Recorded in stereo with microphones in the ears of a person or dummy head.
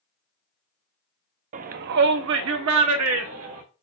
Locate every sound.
1.5 s a shout: 40° right (ahead or behind), 0.5 m; by 3.6 s 85° right, 1.3 m